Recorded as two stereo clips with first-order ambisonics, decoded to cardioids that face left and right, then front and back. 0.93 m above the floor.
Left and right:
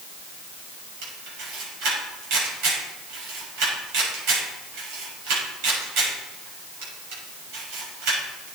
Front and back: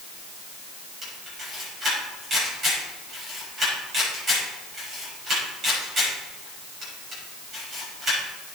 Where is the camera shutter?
110° right, 6.5 m.